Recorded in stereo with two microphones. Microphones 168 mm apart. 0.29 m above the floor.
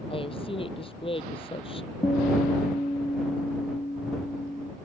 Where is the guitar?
25° left (ahead or behind).